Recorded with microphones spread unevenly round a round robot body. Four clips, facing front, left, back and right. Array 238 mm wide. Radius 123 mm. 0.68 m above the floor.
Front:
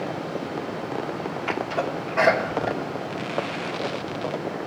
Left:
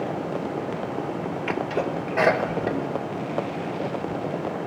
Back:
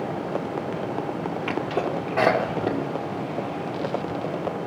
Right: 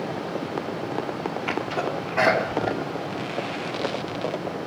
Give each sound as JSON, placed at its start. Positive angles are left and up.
{"t": 1.5, "sound": "a sneeze", "azimuth_deg": 160, "distance_m": 2.5}